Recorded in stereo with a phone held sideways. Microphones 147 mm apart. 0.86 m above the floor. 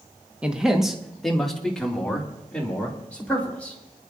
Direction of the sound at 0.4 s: 10° right (ahead or behind).